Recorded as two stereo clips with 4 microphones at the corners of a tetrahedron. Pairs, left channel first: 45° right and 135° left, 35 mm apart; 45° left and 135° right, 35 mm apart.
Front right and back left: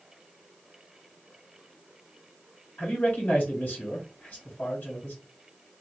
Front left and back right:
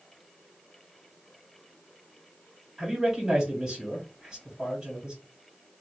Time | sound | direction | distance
2.8 | a man speaking | 60° right | 2.5 m